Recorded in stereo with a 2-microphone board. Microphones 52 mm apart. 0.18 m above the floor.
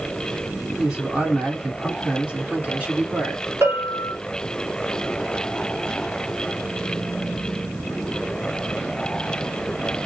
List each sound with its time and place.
0.8 s a man speaking: 15° right (ahead or behind), 1.5 m; by 3.4 s 25° right (ahead or behind), 1.8 m
3.6 s a bell: 55° right (ahead or behind), 1.5 m